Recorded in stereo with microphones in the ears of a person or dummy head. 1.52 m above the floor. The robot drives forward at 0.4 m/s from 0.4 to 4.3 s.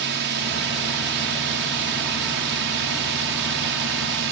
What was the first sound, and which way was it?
A drone, 60° right (ahead or behind).